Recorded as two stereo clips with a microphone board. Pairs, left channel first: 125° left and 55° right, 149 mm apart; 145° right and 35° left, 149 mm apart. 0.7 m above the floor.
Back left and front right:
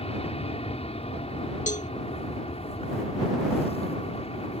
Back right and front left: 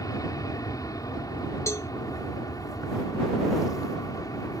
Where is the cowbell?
145° left.